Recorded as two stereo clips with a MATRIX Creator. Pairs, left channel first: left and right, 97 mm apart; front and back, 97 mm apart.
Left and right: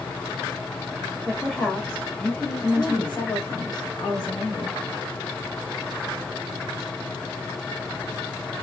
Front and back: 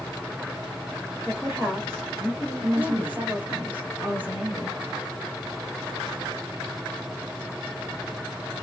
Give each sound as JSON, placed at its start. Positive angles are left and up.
{"t": 1.3, "sound": "a woman speaking", "azimuth_deg": 175, "distance_m": 1.5}
{"t": 2.6, "sound": "a woman speaking", "azimuth_deg": 110, "distance_m": 2.0}